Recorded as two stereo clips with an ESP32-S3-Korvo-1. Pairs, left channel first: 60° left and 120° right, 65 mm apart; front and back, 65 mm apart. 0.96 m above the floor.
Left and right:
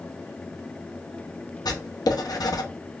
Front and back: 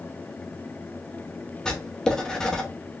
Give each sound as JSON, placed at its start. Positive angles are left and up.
{"t": 1.6, "sound": "writing", "azimuth_deg": 80, "distance_m": 0.8}